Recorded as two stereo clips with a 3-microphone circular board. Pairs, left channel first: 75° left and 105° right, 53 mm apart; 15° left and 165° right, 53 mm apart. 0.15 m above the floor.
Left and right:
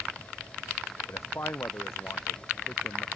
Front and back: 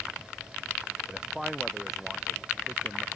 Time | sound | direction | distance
1.1 | a man speaking | 110° left | ?